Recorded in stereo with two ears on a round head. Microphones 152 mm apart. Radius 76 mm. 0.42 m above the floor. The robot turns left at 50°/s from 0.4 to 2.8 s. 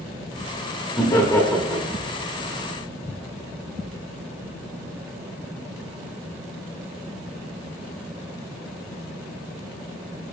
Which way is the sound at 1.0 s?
25° left (ahead or behind).